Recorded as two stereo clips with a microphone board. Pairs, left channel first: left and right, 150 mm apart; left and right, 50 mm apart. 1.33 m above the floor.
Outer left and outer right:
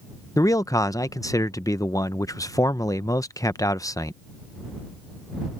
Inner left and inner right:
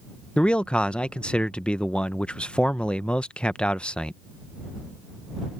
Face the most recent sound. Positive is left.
turn(degrees=20)  # may be behind; listen again after turning